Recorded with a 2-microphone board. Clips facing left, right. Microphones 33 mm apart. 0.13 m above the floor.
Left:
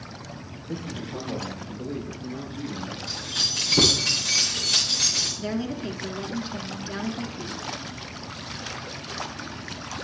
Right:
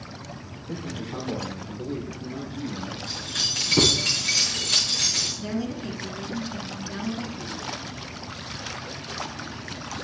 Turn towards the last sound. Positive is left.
turn(degrees=15)  # may be behind; listen again after turning